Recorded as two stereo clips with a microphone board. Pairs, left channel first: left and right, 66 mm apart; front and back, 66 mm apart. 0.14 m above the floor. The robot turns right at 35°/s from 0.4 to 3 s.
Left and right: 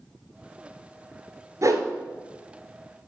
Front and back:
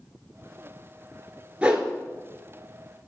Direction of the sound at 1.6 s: 110° right.